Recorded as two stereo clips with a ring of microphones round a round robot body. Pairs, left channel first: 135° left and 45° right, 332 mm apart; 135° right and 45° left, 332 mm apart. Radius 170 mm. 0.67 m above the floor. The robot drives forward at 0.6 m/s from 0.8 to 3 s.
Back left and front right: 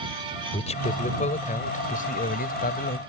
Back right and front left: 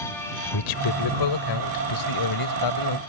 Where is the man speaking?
155° right; by 3.0 s 160° right.